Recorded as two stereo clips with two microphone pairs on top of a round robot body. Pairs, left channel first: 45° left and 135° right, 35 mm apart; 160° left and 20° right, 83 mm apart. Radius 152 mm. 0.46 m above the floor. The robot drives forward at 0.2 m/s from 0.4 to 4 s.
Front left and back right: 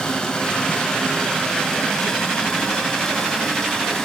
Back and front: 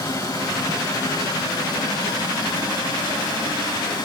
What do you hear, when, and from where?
0.0 s running water: 115° left, 4.5 m; by 4.1 s 125° left, 4.5 m